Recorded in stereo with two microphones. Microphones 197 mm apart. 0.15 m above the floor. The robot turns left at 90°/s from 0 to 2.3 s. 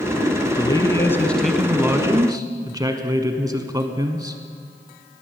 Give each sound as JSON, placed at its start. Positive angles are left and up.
{"t": 0.6, "sound": "a man speaking", "side_deg": 20, "distance_m": 1.0}